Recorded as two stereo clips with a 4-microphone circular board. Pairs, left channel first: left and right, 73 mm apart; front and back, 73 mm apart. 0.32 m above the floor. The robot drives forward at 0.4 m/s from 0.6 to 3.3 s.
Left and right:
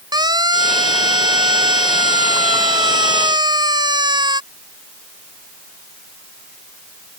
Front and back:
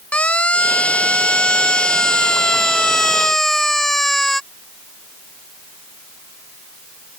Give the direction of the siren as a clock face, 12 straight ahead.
2 o'clock.